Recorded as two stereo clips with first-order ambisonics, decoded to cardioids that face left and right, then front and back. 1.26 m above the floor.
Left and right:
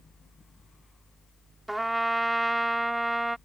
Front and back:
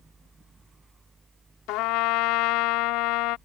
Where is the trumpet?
10° right.